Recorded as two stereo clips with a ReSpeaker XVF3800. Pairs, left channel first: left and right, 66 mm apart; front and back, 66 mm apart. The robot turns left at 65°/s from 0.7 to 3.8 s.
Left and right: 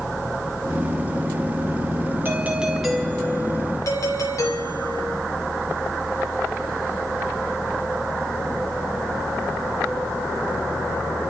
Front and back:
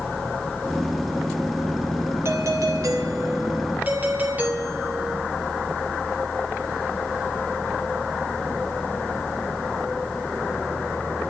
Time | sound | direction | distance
2.2 | a doorbell | 140° right | 3 m